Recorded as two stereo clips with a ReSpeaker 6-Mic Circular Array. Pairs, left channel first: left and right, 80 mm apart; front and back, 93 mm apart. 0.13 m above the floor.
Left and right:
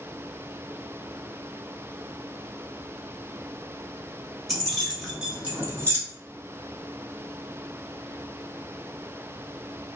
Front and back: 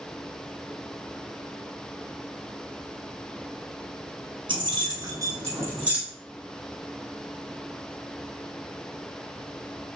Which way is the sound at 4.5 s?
Straight behind.